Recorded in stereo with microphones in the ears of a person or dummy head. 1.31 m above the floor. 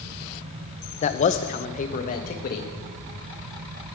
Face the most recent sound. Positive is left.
turn(degrees=45)  # may be behind; listen again after turning